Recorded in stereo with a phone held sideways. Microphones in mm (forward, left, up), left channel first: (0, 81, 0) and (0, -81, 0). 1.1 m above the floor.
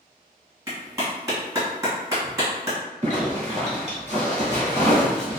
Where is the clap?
20° right (ahead or behind), 1.3 m.